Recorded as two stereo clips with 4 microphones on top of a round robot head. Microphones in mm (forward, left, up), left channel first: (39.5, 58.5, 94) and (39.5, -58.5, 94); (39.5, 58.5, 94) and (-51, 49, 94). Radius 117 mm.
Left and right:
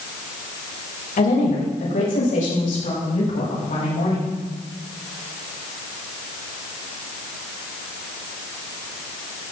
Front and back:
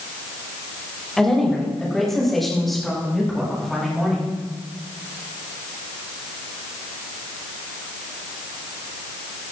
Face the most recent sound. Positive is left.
turn(degrees=95)